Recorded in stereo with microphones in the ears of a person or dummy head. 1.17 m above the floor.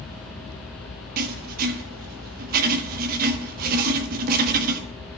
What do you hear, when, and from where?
1.2 s writing: 50° right (ahead or behind), 1.2 m